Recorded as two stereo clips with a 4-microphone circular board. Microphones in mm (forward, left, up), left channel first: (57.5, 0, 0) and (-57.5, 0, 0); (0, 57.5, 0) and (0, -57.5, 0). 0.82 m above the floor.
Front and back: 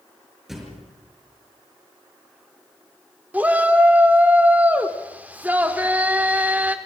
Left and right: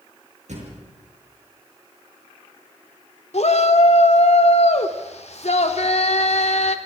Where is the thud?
90° right, 6.5 m.